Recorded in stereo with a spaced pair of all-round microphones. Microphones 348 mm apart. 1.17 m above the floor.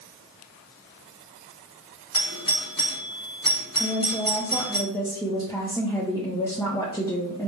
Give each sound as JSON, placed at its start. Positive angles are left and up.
{"t": 2.1, "sound": "a doorbell", "side_deg": 65, "distance_m": 1.6}
{"t": 3.8, "sound": "a woman speaking", "side_deg": 10, "distance_m": 0.8}